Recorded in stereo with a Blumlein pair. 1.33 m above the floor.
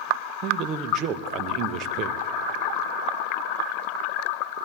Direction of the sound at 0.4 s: 35° right.